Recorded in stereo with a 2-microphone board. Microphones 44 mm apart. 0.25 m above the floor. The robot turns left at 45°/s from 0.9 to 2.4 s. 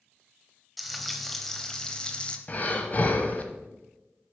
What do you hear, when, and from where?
0.8 s frying: 5° right (ahead or behind), 0.8 m; by 2.4 s 20° left (ahead or behind), 0.8 m
2.5 s breathing: 30° left (ahead or behind), 0.9 m